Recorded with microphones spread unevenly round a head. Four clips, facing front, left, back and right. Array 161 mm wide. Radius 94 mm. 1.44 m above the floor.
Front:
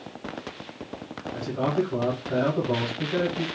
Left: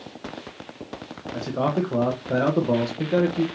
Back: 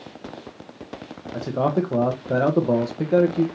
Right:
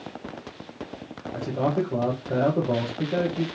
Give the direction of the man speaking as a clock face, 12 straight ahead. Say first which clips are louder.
Left 1 dB, back 4 dB; 6 o'clock.